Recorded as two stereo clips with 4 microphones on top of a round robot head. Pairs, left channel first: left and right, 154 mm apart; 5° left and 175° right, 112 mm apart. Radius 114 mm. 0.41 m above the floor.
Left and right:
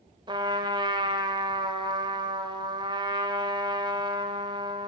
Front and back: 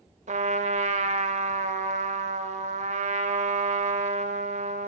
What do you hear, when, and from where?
0.3 s a trumpet: 155° right, 0.5 m